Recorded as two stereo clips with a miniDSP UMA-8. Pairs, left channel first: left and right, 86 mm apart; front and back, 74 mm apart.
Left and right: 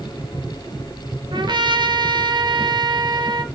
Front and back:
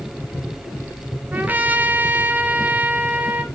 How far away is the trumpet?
About 1.1 m.